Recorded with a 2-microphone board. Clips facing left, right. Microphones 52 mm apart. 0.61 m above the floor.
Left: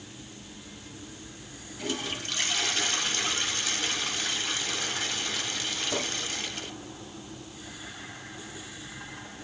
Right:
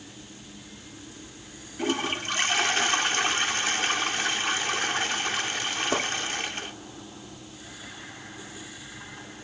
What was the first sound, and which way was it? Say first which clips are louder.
A toilet flushing: right 6 dB; 35° right (ahead or behind).